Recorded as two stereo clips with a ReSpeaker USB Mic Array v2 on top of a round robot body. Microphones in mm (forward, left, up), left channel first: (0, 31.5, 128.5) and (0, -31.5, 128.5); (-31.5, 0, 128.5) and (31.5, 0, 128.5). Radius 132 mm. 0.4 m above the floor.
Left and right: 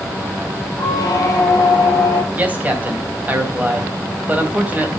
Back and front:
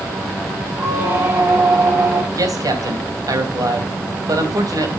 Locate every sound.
0.8 s a squeak: 60° left, 8 m
2.3 s a man speaking: 25° right, 3 m